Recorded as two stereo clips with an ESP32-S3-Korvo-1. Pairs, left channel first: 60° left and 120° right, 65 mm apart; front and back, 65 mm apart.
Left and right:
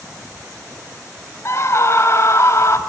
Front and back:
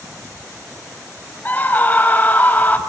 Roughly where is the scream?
Ahead left.